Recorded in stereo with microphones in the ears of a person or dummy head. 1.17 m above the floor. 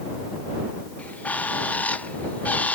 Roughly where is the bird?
Centre.